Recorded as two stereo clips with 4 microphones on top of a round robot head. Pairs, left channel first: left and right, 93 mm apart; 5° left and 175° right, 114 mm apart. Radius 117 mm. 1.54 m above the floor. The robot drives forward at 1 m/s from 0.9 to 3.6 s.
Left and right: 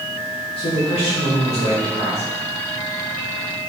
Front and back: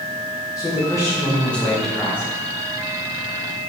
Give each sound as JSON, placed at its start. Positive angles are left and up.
{"t": 0.6, "sound": "a man speaking", "azimuth_deg": 70, "distance_m": 2.0}